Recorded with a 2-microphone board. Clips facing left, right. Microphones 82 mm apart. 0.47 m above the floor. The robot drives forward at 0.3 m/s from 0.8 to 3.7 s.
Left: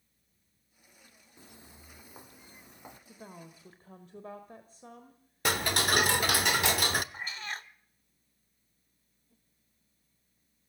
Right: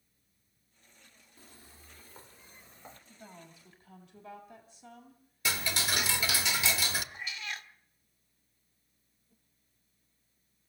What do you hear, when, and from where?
1.4 s footsteps: 20° left (ahead or behind), 0.7 m; by 3.0 s 15° left (ahead or behind), 1.2 m
3.1 s a woman speaking: 45° left (ahead or behind), 1.4 m; by 6.5 s 40° left (ahead or behind), 1.5 m
5.5 s ticking: 55° left (ahead or behind), 0.7 m
7.1 s a cat meowing: 40° left (ahead or behind), 0.6 m